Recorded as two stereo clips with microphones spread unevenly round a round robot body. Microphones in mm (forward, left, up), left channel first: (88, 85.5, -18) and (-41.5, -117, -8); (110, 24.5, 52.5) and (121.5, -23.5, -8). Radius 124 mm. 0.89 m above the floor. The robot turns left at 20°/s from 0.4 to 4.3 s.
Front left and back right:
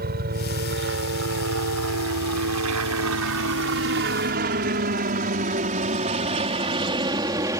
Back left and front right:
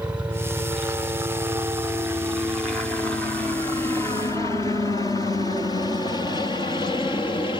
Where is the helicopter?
75° right; by 7.6 s 165° left.